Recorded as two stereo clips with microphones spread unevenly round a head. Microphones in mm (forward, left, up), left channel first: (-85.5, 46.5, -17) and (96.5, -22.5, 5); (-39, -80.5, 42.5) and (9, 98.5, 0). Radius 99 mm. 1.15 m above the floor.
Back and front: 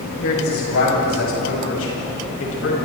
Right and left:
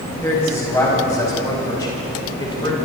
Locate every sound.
0.2 s a man speaking: 175° left, 9 m; by 2.8 s 170° right, 7 m